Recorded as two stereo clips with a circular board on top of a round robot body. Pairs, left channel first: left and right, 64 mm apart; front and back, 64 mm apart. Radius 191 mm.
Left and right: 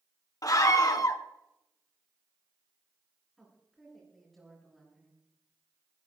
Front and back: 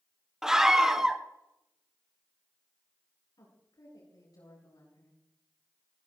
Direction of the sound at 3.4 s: 5° left.